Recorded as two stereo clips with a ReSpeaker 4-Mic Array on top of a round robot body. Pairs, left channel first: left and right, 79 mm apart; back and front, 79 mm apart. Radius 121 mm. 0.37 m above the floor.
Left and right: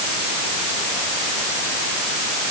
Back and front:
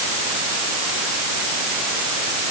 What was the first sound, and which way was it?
Only background noise.